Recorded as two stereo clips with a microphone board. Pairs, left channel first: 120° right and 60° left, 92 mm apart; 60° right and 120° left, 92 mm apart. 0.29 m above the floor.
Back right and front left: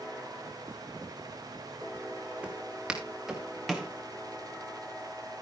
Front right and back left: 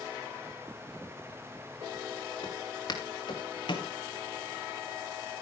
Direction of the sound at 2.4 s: 20° right.